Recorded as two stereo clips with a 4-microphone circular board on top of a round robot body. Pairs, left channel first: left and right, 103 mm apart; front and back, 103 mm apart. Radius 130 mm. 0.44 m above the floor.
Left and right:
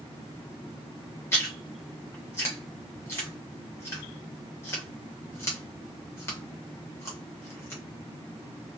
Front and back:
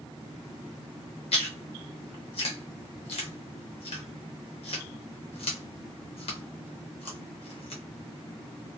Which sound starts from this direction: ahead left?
Chewing, at 1.3 s.